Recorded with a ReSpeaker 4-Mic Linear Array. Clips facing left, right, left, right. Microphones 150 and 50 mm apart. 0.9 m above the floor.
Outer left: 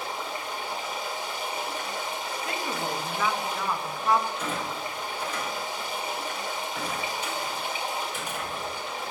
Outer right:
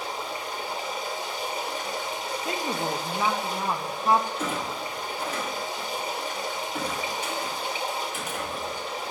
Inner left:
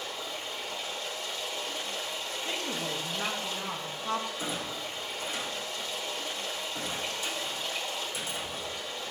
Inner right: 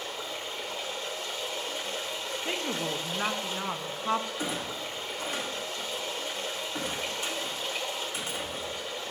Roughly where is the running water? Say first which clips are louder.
Outer right 1 dB, inner right 1 dB; right.